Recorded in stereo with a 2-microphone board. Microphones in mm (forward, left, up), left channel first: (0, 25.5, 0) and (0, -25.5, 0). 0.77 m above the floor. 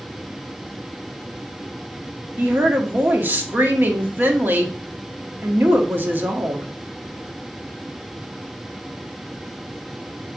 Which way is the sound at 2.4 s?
40° right (ahead or behind).